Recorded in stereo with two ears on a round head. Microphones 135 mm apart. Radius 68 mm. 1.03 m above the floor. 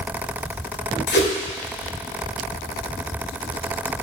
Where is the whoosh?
75° left (ahead or behind), 2.0 m.